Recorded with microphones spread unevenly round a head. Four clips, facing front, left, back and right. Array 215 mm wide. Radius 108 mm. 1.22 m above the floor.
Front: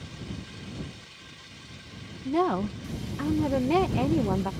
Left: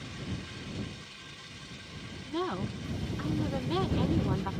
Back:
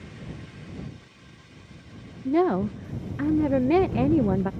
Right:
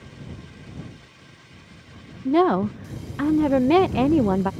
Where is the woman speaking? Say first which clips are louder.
Right 15 dB, back 3 dB; 115° right.